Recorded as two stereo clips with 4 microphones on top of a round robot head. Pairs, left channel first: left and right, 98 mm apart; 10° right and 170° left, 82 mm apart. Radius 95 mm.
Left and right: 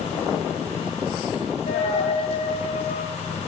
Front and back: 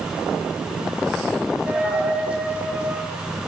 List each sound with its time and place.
1.7 s a dropped coin: 95° left, 1.3 m